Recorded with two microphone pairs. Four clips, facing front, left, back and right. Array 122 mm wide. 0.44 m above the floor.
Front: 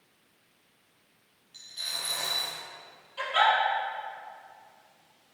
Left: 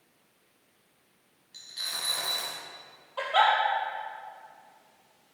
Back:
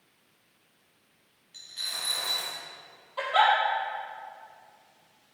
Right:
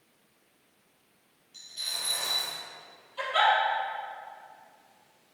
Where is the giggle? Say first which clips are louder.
Left 1 dB, back 2 dB; 125° left, 2.5 m.